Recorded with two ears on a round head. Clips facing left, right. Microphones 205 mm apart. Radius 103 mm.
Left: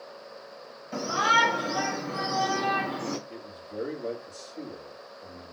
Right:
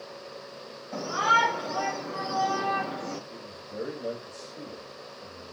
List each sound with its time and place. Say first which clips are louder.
0.9 s a shout: left 1 dB; 15° left (ahead or behind), 2.5 m; by 3.2 s 45° left (ahead or behind), 1.2 m
3.3 s a man speaking: left 1 dB; 15° right (ahead or behind), 2 m